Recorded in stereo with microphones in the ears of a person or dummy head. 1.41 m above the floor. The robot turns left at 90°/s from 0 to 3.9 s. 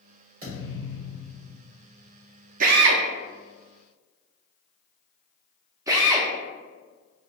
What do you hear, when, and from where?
0.4 s a thud: 50° right, 1.9 m; by 1.6 s 155° right, 1.9 m
2.6 s a drill: 45° right (ahead or behind), 0.5 m; by 6.3 s 15° right (ahead or behind), 0.5 m